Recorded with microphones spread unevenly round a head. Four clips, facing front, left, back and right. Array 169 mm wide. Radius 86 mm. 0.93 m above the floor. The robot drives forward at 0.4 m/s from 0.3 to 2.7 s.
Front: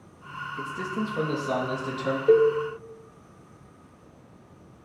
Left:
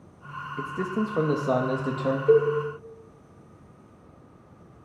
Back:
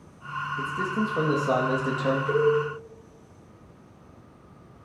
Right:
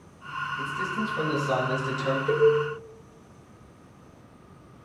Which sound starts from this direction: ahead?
A cowbell, at 2.3 s.